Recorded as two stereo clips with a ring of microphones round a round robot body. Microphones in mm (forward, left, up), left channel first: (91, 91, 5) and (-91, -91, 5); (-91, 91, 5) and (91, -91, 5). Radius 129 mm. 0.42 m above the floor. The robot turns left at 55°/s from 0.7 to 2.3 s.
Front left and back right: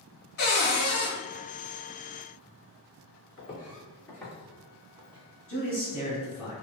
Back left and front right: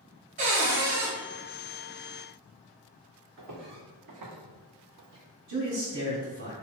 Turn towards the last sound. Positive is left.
turn(degrees=-55)